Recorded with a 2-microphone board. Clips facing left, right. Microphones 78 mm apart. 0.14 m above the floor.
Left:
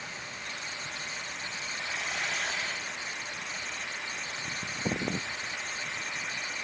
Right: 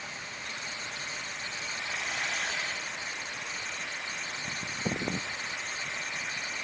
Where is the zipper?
I don't hear a zipper.